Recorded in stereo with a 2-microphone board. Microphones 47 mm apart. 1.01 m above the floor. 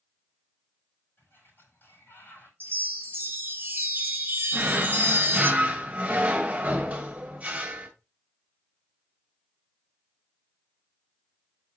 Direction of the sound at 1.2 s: 50° left (ahead or behind).